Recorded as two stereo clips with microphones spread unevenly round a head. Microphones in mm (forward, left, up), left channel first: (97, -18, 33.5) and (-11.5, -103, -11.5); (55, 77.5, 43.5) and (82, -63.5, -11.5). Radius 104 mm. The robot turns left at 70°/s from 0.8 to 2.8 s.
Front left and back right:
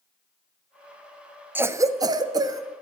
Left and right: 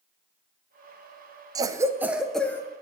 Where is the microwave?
No microwave in this recording.